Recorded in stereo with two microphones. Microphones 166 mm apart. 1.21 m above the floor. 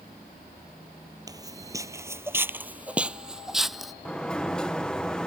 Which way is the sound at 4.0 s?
5° left (ahead or behind).